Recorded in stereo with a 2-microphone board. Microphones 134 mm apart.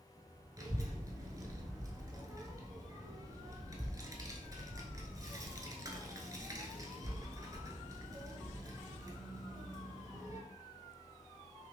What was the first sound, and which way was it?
A child speaking, 25° right (ahead or behind).